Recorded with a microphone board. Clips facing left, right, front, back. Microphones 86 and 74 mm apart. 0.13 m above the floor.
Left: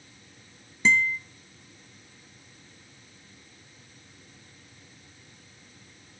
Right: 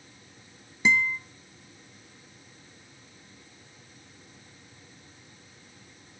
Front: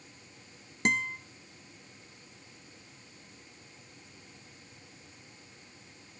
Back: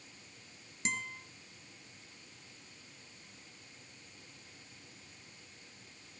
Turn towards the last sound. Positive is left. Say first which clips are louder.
# left 1 dB, front 9 dB
turn(degrees=-10)